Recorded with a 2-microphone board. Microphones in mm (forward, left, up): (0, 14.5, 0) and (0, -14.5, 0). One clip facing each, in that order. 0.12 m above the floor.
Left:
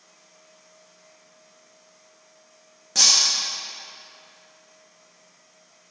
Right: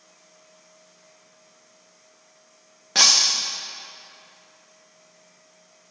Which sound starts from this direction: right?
Breaking glass, at 3.0 s.